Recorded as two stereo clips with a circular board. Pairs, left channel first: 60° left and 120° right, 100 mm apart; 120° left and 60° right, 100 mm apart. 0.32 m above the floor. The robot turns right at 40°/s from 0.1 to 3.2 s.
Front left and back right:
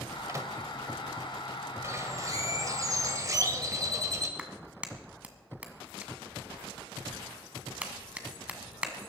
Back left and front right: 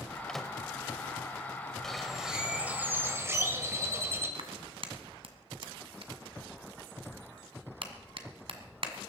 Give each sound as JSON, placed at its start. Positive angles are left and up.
{"t": 0.3, "sound": "a microwave", "azimuth_deg": -160, "distance_m": 0.8}
{"t": 1.8, "sound": "a bird", "azimuth_deg": -155, "distance_m": 1.6}
{"t": 4.4, "sound": "a clap", "azimuth_deg": -45, "distance_m": 1.7}